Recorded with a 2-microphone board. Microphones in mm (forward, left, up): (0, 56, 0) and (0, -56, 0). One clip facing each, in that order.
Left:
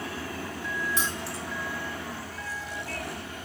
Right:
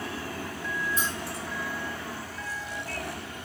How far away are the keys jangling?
About 1.1 m.